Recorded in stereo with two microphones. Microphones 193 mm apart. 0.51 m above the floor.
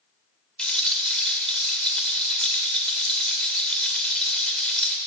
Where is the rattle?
5° left (ahead or behind), 1.7 m.